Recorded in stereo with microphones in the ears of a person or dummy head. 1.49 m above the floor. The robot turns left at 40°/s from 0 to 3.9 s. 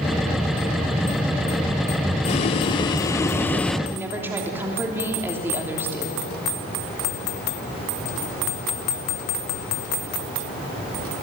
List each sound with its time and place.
2.2 s boiling: 75° left, 0.7 m; by 3.8 s 10° left, 0.7 m
3.9 s a woman speaking: 10° right (ahead or behind), 3 m